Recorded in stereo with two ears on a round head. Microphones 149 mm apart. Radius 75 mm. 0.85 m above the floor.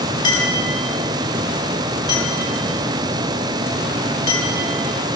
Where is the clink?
25° left (ahead or behind), 7.5 m.